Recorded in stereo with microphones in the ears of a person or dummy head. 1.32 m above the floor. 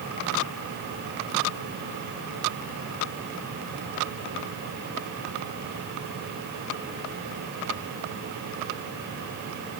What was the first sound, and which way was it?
Only background noise.